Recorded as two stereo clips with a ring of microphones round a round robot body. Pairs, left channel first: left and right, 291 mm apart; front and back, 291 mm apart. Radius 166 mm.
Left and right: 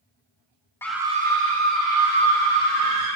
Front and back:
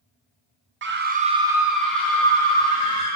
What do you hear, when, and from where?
0.8 s a scream: 170° left, 1.0 m; by 3.2 s 75° right, 3 m